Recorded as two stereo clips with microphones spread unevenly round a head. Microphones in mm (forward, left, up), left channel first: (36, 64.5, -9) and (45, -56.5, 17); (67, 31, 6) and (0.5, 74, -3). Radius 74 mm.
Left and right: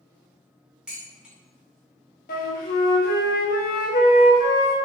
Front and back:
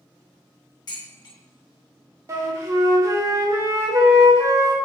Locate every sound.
0.9 s dishes clattering: straight ahead, 1.0 m
2.3 s a flute: 90° left, 0.6 m